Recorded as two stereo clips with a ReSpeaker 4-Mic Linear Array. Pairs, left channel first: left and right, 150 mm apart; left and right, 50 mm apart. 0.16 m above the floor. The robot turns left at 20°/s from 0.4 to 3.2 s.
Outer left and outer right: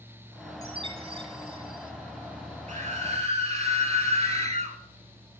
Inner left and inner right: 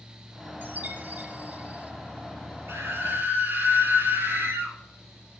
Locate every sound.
0.6 s a chime: 40° right (ahead or behind), 0.8 m; by 1.9 s 35° right (ahead or behind), 0.8 m
2.7 s a scream: 50° right (ahead or behind), 3.5 m; by 4.8 s 40° right (ahead or behind), 3.5 m